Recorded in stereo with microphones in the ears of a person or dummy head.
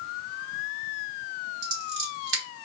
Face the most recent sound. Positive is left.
turn(degrees=-75)  # may be behind; listen again after turning